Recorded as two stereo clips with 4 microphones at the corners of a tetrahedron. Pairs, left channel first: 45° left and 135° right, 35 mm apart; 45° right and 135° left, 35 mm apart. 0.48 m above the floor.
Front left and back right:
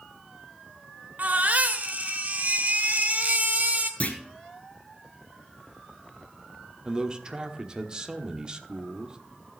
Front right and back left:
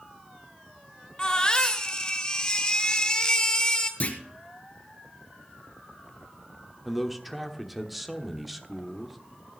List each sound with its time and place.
1.2 s a baby crying: 110° right, 1.3 m
4.0 s a clunk: straight ahead, 1.5 m
6.8 s a man speaking: 145° right, 1.1 m